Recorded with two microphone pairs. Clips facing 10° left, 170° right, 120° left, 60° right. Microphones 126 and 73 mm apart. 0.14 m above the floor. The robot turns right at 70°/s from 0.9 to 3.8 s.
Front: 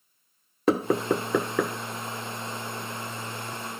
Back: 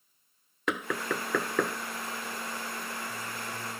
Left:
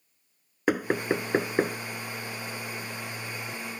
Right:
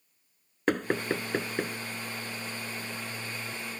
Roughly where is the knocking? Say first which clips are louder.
Front 9 dB, left 2 dB; ahead left.